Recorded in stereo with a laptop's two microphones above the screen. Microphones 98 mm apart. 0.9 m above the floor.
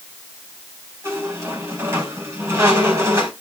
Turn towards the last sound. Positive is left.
turn(degrees=-30)  # may be behind; listen again after turning